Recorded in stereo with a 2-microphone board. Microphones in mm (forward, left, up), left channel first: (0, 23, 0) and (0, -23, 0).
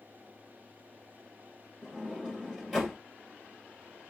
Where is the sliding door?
5° right (ahead or behind), 1.8 m.